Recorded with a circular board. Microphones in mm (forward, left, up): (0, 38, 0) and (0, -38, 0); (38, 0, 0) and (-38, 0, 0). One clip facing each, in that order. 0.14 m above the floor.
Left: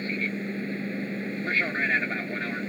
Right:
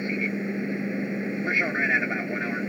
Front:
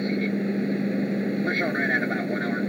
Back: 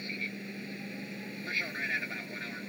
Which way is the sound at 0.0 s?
20° right.